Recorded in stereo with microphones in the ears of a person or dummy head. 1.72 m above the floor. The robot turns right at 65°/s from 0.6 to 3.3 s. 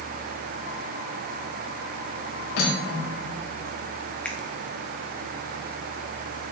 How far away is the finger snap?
About 1.0 m.